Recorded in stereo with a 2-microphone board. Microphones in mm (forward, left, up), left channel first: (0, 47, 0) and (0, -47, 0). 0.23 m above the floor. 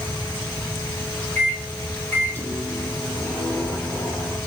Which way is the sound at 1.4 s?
20° left (ahead or behind).